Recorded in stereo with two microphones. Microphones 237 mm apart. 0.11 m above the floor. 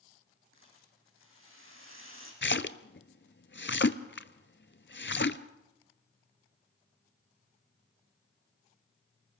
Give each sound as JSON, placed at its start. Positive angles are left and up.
{"t": 0.5, "sound": "a rattle", "side_deg": -60, "distance_m": 6.0}
{"t": 2.4, "sound": "a splash", "side_deg": 50, "distance_m": 0.7}